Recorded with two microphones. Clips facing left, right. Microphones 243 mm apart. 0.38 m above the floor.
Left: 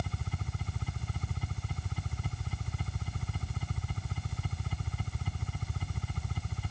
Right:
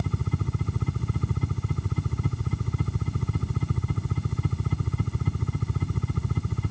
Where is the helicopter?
65° right (ahead or behind).